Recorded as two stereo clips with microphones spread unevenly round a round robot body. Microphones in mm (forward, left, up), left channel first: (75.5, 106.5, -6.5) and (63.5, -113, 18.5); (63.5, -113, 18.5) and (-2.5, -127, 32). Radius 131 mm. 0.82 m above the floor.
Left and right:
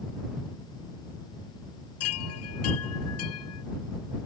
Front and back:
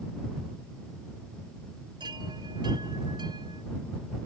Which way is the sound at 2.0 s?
125° left.